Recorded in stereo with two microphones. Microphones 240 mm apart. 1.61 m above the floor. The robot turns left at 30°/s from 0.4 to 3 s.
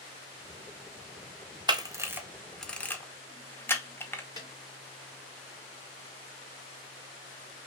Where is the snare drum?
15° left (ahead or behind), 3 m.